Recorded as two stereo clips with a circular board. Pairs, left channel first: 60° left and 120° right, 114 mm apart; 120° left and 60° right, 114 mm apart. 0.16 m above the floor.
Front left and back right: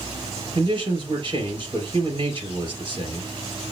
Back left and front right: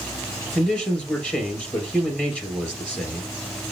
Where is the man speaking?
160° right, 2.5 m.